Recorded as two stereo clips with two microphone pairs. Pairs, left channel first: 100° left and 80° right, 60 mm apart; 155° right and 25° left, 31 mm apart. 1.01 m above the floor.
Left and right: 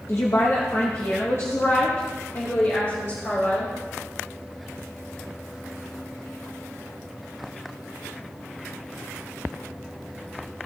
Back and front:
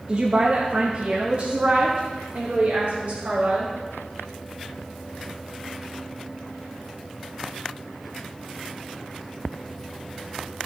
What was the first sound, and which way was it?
A woman speaking, 70° left.